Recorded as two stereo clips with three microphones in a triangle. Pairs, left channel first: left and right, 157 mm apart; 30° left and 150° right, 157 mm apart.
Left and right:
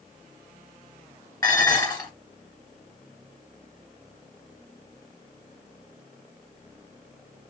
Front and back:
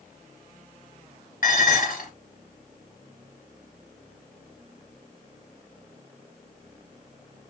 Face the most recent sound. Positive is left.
turn(degrees=30)